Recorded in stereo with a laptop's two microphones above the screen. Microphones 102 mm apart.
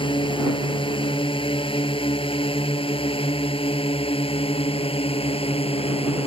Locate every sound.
0.0 s a drone: 55° left (ahead or behind); by 6.3 s 70° left (ahead or behind)